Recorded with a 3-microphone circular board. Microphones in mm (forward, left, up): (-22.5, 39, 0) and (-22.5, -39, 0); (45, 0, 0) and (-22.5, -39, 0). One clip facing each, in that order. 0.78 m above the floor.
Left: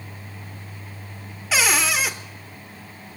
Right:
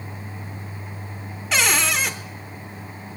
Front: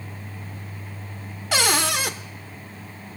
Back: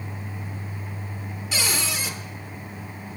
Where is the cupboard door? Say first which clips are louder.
Even, front 7 dB; 5° left, 0.8 m.